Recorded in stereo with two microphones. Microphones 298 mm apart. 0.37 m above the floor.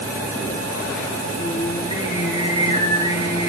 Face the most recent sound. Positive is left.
turn(degrees=15)  # may be behind; listen again after turning